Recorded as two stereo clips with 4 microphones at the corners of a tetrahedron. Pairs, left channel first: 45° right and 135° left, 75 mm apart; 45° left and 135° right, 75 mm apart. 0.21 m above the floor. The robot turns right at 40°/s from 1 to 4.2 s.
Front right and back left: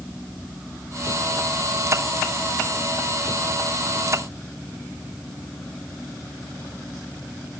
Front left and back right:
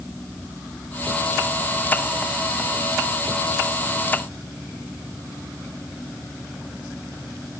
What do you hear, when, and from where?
Only background noise.